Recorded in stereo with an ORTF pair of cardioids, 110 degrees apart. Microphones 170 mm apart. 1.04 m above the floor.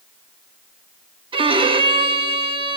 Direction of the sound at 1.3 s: 30° right.